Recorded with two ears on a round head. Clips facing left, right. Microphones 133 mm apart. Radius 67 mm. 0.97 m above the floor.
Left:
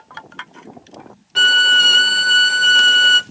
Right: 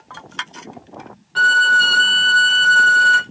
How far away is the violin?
About 0.6 m.